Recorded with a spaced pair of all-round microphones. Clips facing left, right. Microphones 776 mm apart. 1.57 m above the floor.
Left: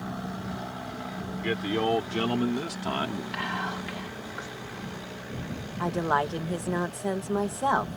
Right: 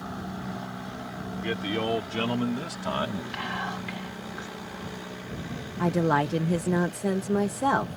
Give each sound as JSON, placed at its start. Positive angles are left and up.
{"t": 1.2, "sound": "a man speaking", "side_deg": 0}
{"t": 3.3, "sound": "whispering", "side_deg": 5}
{"t": 5.8, "sound": "a woman speaking", "side_deg": -55}